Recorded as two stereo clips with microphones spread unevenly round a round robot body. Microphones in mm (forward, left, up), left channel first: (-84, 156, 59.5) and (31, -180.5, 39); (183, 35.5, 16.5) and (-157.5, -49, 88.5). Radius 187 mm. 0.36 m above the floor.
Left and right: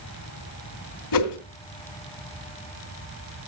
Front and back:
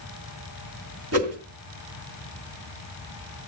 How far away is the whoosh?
About 2.5 m.